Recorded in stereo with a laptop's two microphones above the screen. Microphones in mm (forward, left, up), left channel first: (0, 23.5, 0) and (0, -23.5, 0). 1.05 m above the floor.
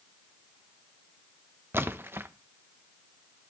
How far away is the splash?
About 1.0 m.